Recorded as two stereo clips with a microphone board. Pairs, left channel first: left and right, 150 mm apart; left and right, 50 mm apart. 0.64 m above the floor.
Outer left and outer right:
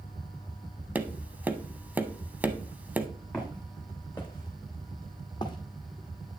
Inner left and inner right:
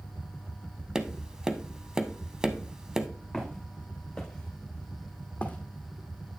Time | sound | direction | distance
0.9 | tapping | 10° right (ahead or behind) | 0.6 m
3.3 | footsteps | 5° left (ahead or behind) | 2.5 m